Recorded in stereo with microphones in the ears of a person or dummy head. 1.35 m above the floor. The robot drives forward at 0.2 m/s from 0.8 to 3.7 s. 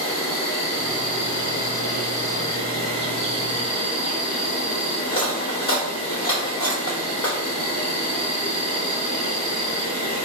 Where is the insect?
65° left (ahead or behind), 1.5 m; by 10.3 s 55° left (ahead or behind), 1.7 m.